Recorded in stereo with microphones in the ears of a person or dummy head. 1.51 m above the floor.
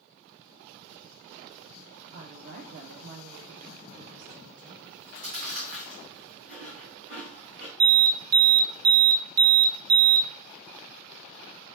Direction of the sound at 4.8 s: 45° right (ahead or behind).